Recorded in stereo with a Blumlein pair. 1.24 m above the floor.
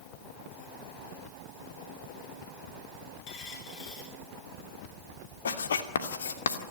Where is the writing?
65° left, 2.5 m.